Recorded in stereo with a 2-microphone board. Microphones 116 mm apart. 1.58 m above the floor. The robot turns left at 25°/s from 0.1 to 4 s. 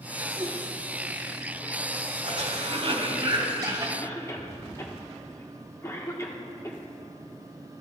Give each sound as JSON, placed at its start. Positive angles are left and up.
{"t": 0.4, "sound": "a whoosh", "side_deg": -35, "distance_m": 1.5}
{"t": 2.2, "sound": "a cough", "azimuth_deg": -110, "distance_m": 2.5}
{"t": 4.0, "sound": "a cough", "side_deg": 25, "distance_m": 1.2}